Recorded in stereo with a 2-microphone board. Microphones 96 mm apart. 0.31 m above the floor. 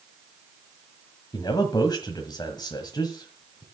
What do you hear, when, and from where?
1.3 s a man speaking: 45° left (ahead or behind), 1.4 m